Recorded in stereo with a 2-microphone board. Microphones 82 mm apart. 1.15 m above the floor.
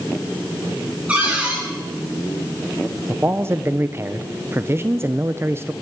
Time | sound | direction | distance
1.1 | a cupboard door | 15° right (ahead or behind) | 8 m
3.1 | a man speaking | 30° right (ahead or behind) | 0.7 m